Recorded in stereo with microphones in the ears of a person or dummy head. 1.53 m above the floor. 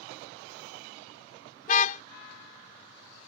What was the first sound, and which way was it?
A car horn, 50° left (ahead or behind).